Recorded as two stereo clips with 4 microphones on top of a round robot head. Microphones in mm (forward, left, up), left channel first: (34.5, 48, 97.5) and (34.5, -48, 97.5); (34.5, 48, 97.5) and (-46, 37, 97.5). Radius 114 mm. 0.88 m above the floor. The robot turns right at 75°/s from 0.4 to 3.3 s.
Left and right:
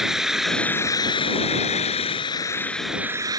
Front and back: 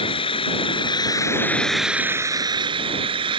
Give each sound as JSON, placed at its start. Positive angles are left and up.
{"t": 0.0, "sound": "an engine running", "azimuth_deg": -5}